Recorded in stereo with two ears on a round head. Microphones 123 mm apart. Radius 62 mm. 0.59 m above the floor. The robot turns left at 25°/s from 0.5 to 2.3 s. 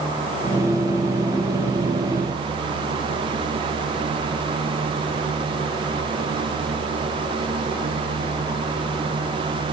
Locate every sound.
Only background noise.